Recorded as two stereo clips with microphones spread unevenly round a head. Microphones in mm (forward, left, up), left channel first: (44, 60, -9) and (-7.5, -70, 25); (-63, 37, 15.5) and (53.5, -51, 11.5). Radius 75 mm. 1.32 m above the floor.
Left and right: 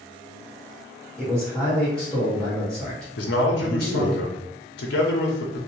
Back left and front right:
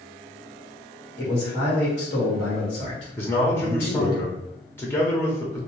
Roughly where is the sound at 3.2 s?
Ahead left.